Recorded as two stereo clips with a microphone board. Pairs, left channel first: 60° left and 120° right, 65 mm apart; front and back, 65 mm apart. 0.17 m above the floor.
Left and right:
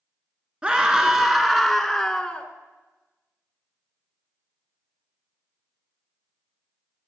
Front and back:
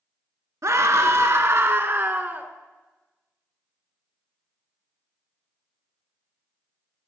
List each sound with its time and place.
0.6 s a scream: 170° left, 1.7 m; by 2.5 s 125° left, 1.5 m